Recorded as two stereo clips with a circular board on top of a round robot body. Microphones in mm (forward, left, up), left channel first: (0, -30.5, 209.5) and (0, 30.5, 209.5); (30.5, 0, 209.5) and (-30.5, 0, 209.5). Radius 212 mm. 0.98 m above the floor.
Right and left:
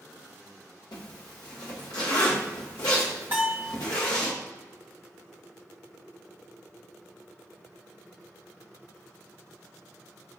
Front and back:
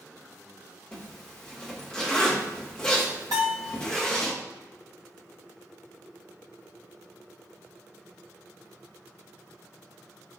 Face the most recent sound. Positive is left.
turn(degrees=150)